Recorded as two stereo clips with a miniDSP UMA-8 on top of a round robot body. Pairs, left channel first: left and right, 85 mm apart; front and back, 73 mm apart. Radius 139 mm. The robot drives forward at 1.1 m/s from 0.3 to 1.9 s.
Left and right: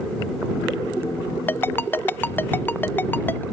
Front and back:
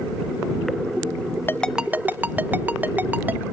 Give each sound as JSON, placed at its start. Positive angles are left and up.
{"t": 1.5, "sound": "a ringtone", "azimuth_deg": 35, "distance_m": 0.6}